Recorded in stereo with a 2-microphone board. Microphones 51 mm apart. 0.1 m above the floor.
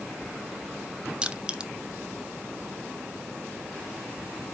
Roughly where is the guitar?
No guitar in this recording.